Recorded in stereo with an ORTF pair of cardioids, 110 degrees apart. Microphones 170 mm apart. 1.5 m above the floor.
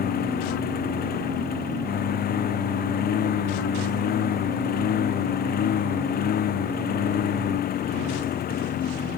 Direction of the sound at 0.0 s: 60° left.